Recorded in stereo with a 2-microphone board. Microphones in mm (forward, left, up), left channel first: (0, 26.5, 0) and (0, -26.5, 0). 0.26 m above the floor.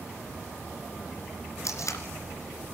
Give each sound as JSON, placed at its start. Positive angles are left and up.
{"t": 1.6, "sound": "tape being pulled", "side_deg": 75, "distance_m": 2.5}